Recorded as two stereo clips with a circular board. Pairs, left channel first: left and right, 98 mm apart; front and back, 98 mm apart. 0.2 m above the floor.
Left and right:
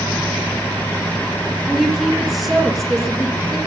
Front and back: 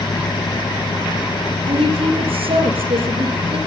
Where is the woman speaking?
Straight behind, 4.5 m.